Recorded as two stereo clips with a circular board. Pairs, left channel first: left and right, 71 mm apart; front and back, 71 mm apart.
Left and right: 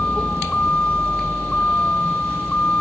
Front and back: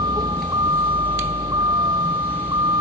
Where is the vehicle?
165° left.